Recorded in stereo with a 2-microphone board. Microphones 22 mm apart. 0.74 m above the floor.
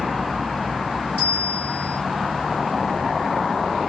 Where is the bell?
40° right (ahead or behind), 1.0 m.